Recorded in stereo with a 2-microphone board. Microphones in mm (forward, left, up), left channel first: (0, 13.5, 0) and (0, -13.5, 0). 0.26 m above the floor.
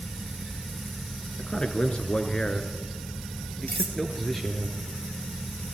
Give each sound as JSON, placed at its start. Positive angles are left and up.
{"t": 1.4, "sound": "a man speaking", "side_deg": 45, "distance_m": 3.0}
{"t": 3.7, "sound": "cutlery clinking", "side_deg": 80, "distance_m": 3.5}